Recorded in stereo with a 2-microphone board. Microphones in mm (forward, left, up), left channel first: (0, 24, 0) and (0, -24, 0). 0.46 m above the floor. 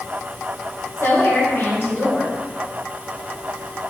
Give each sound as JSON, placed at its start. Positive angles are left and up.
{"t": 1.0, "sound": "a woman speaking", "side_deg": 55, "distance_m": 2.5}